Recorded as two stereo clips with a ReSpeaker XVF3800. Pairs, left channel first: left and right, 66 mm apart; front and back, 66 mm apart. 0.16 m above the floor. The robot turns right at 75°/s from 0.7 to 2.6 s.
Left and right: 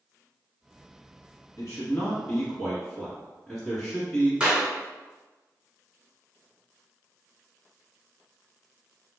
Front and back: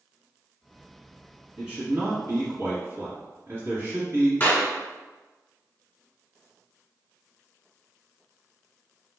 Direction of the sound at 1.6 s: 105° left.